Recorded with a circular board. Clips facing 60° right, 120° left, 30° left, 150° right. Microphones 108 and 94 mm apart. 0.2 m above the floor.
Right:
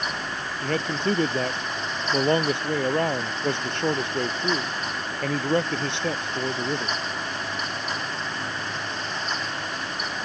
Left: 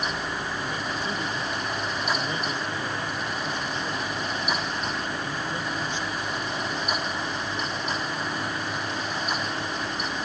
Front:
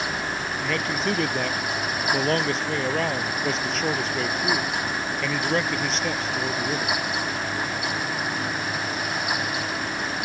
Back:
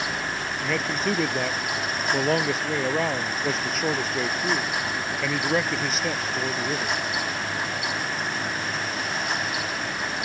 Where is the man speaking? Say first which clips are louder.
Right 5 dB, even; 65° right.